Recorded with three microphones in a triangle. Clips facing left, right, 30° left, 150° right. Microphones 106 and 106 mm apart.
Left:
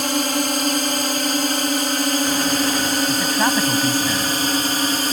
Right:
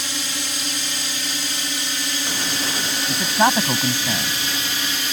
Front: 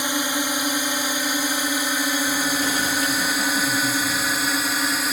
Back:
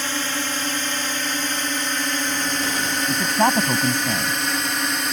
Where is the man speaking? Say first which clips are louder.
Right 6 dB, back 5 dB; 150° right.